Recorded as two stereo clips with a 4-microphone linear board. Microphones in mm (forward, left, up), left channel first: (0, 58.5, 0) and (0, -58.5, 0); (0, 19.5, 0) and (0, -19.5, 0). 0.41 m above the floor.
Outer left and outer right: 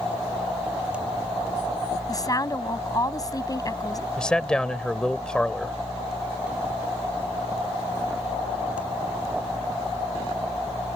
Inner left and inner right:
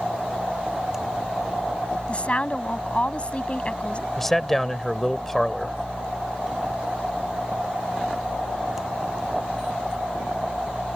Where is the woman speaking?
30° left (ahead or behind).